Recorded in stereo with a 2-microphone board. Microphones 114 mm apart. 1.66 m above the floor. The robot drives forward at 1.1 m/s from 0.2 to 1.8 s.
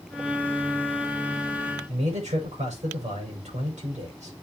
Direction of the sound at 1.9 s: 85° right.